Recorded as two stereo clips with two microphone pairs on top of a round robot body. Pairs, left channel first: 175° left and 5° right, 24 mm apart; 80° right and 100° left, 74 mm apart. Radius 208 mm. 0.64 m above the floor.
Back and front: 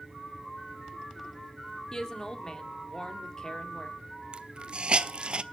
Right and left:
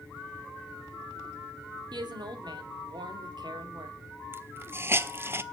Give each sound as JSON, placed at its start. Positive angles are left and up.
{"t": 1.9, "sound": "a woman speaking", "azimuth_deg": 110, "distance_m": 2.0}
{"t": 4.3, "sound": "a hiss", "azimuth_deg": 40, "distance_m": 0.6}